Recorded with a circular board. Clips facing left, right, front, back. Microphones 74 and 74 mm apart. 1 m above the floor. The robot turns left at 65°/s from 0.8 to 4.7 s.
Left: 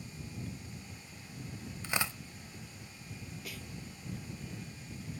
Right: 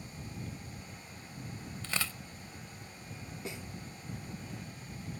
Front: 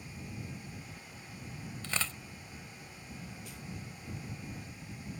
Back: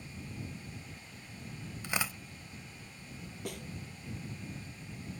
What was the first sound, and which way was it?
Tearing paper, 135° left.